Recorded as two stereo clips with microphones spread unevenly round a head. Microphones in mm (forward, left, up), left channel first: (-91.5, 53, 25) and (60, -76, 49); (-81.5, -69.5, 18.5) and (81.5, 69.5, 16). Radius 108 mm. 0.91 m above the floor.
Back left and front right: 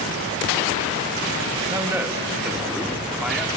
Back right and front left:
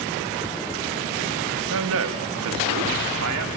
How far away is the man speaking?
About 1.1 m.